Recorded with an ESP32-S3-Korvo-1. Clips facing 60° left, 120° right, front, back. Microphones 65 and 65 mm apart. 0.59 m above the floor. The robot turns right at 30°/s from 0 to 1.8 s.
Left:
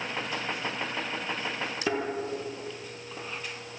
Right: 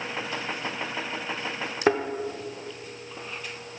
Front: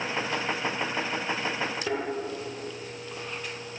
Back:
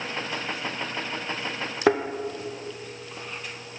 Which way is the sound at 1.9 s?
160° right.